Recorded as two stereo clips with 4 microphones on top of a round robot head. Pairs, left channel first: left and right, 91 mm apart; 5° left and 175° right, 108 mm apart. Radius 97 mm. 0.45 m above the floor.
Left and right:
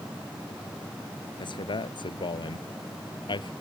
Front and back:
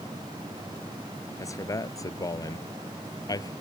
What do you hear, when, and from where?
1.4 s a man speaking: 65° left; by 3.5 s 60° left